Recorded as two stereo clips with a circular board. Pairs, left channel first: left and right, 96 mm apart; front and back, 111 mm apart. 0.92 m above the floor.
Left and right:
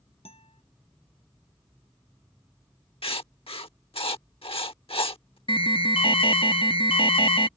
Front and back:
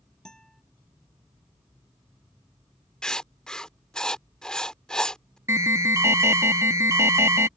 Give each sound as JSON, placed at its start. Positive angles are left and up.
{"t": 0.2, "sound": "a guitar", "azimuth_deg": 85}
{"t": 3.0, "sound": "writing", "azimuth_deg": 80}
{"t": 5.5, "sound": "an alarm", "azimuth_deg": 115}